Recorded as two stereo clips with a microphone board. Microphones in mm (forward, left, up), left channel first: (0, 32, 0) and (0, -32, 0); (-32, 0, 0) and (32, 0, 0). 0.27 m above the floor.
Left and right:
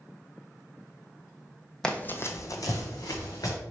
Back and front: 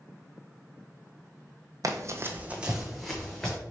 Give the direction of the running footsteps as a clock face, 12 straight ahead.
12 o'clock.